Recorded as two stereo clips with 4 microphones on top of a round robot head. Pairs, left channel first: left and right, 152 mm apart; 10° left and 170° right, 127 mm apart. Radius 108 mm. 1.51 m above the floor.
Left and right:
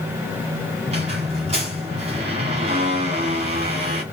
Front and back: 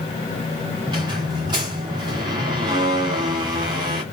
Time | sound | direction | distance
0.9 | a squeak | 120° right | 1.6 m